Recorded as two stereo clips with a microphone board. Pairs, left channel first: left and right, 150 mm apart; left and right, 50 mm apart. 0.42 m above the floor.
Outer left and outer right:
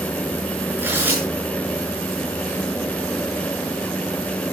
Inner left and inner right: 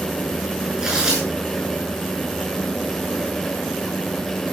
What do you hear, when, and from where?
0.8 s tearing paper: 15° right (ahead or behind), 6.5 m